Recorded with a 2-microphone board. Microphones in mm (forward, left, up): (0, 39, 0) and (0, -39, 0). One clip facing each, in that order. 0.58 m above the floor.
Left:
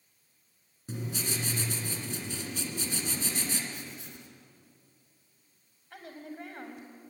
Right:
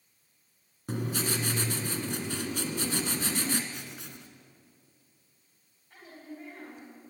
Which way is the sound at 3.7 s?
85° right.